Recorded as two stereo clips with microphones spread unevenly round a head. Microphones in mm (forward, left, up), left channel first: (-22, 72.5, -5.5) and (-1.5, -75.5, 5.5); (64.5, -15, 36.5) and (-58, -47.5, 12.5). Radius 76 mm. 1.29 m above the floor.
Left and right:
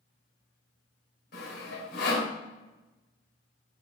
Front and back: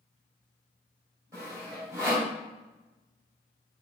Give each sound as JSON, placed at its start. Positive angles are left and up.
{"t": 1.3, "sound": "sawing", "azimuth_deg": 120, "distance_m": 2.5}